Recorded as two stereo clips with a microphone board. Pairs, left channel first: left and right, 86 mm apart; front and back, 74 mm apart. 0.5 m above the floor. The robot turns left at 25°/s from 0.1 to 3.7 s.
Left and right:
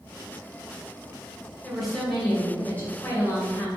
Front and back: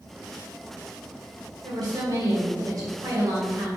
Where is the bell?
I don't hear a bell.